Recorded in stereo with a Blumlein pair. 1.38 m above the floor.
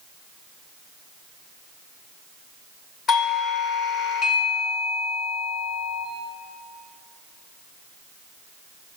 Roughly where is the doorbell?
Ahead left.